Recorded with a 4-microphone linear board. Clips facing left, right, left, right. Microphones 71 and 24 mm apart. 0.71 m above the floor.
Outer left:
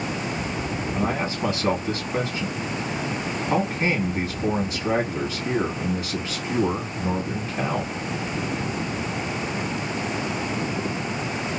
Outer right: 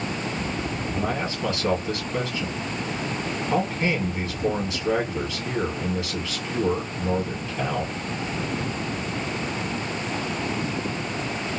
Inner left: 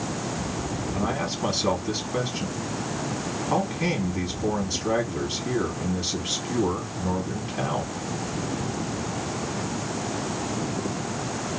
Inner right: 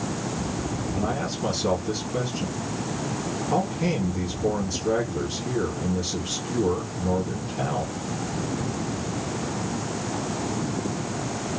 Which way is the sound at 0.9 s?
30° left (ahead or behind).